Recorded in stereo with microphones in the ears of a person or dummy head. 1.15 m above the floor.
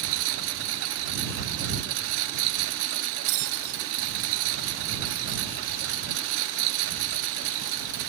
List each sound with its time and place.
0.0 s a lawn mower: 75° right (ahead or behind)
3.3 s a bell: 65° right (ahead or behind)